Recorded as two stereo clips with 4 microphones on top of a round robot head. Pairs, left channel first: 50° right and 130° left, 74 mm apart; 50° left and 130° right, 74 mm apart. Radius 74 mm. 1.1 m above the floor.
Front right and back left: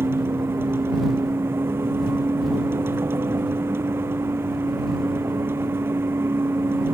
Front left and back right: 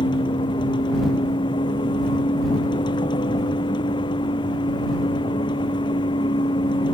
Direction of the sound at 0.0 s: 70° left.